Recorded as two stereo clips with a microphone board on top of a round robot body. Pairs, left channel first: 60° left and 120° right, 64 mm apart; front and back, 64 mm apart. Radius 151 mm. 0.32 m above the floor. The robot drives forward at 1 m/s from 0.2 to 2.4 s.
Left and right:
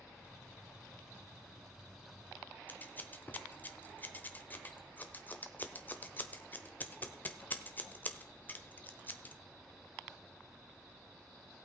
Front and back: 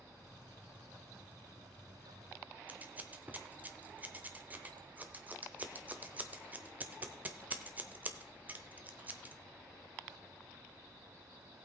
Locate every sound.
2.7 s scissors: 120° left, 1.0 m